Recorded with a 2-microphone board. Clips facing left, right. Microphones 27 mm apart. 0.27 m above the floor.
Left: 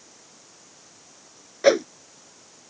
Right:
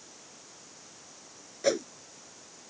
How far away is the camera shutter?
No camera shutter in this recording.